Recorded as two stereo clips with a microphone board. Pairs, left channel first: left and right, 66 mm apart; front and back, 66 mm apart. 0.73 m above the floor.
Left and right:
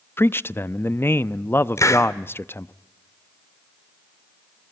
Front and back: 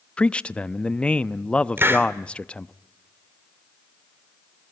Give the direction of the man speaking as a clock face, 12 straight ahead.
10 o'clock.